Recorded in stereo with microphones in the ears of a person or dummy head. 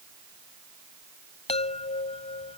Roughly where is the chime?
Left.